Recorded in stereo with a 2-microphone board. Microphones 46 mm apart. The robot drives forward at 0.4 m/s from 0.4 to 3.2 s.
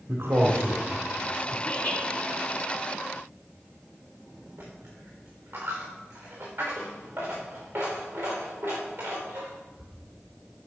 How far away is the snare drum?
No snare drum in this recording.